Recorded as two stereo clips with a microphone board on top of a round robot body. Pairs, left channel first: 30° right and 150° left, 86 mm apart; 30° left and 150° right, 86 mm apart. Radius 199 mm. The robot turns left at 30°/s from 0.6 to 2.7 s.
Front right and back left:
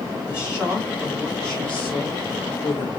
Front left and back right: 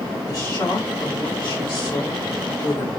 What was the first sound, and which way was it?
A woman speaking, 75° left.